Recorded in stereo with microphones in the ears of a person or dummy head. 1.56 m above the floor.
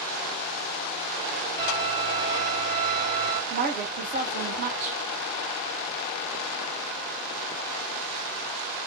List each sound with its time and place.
1.6 s a violin: 10° left (ahead or behind), 1.3 m
3.5 s a woman speaking: 40° right (ahead or behind), 1.2 m